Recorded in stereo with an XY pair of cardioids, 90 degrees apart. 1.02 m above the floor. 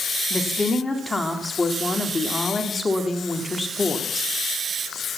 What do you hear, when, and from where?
0.3 s a woman speaking: 20° left, 2.0 m